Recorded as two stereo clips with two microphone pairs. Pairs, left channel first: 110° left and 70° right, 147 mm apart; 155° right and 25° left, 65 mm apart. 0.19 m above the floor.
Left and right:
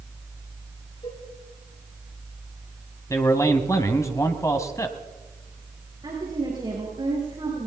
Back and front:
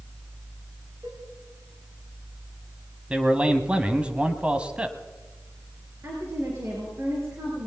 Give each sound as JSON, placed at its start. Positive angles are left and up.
{"t": 1.0, "sound": "a cowbell", "azimuth_deg": 65, "distance_m": 9.5}
{"t": 3.1, "sound": "a man speaking", "azimuth_deg": 70, "distance_m": 1.2}
{"t": 6.0, "sound": "a woman speaking", "azimuth_deg": -15, "distance_m": 4.5}